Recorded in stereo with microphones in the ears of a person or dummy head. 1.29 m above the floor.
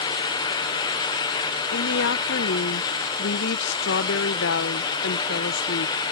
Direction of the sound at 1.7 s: 60° left (ahead or behind).